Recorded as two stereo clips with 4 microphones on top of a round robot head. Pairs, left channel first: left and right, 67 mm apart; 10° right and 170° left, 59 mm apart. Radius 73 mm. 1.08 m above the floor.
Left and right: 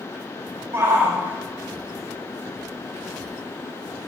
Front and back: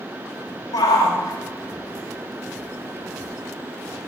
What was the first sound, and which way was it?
A shout, 30° right.